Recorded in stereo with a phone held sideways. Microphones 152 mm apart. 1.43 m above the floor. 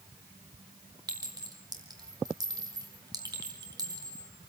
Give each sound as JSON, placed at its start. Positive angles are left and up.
{"t": 1.1, "sound": "a clink", "side_deg": -25, "distance_m": 4.0}